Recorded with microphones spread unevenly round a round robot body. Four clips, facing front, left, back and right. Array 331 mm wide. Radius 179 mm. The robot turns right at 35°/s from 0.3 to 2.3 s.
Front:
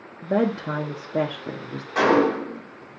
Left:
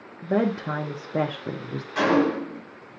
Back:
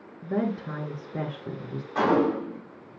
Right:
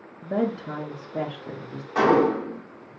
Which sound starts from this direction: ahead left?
A woman speaking, at 0.2 s.